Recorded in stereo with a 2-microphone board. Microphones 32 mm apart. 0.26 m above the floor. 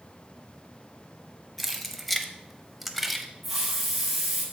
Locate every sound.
1.6 s keys jangling: 5° left (ahead or behind), 1.0 m; by 3.3 s centre (ahead or behind), 0.9 m
3.4 s a hiss: centre (ahead or behind), 2.5 m